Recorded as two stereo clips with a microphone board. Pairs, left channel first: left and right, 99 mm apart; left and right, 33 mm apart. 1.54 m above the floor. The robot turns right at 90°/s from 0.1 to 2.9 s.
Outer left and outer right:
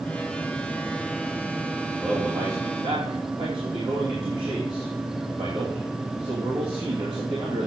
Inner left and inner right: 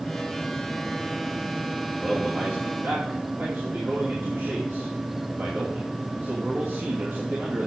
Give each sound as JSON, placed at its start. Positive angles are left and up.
{"t": 2.0, "sound": "a man speaking", "azimuth_deg": 170, "distance_m": 2.5}